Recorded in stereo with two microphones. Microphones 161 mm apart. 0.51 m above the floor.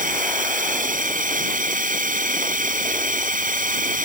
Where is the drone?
60° right (ahead or behind).